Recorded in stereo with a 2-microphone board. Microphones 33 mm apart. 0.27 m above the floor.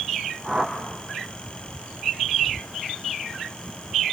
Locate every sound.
0.4 s a whoosh: 10° left (ahead or behind), 4.5 m